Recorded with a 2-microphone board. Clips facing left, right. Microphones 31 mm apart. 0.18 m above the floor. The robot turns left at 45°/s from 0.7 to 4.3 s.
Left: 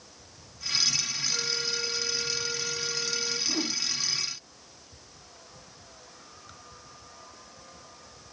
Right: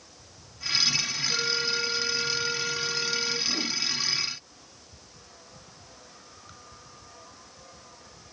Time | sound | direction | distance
1.3 | a flute | 50° right | 6.5 m
3.5 | a whoosh | 10° left (ahead or behind) | 1.5 m